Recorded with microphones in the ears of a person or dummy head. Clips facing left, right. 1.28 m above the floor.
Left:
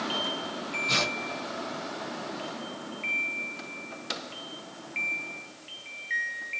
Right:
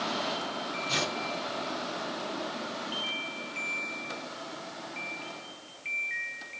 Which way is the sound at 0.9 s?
60° left (ahead or behind).